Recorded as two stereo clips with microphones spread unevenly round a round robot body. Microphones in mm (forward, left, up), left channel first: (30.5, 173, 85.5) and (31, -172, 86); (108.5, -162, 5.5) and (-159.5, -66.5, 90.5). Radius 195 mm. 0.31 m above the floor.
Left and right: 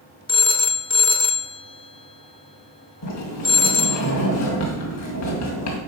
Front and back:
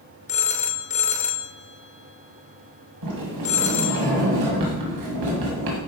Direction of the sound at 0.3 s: 20° left.